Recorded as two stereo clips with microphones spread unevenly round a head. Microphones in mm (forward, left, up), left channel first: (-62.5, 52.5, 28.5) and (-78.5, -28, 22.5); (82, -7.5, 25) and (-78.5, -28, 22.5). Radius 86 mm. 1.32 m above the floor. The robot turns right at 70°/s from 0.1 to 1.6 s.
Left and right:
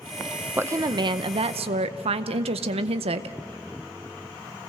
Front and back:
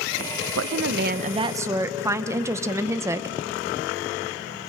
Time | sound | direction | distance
0.6 | a woman speaking | 170° right | 0.7 m